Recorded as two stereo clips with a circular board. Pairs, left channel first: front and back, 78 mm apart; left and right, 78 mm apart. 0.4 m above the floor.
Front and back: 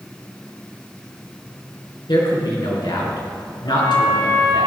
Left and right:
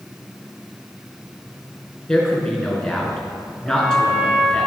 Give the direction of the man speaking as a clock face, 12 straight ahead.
12 o'clock.